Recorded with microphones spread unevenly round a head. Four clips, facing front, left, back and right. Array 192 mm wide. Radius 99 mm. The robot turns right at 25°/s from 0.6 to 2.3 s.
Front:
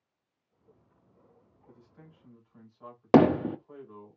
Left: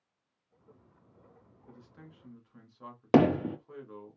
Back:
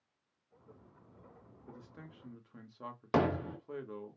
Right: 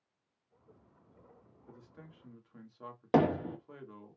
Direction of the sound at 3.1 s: 25° left.